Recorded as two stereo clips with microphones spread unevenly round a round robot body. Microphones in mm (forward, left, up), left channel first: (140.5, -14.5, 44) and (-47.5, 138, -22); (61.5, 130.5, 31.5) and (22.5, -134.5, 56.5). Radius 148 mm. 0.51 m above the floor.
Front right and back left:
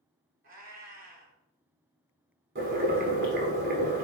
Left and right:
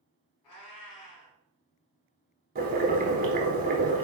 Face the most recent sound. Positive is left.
turn(degrees=-155)